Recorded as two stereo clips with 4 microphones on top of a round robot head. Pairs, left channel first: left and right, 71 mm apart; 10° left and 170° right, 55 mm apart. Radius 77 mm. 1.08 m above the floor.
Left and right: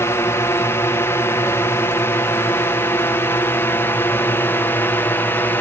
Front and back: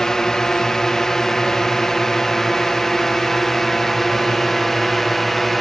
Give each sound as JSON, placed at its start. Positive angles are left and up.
{"t": 0.0, "sound": "a drone", "azimuth_deg": 85}